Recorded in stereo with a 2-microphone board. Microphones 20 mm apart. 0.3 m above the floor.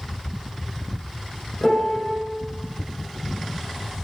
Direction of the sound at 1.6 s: 20° left (ahead or behind).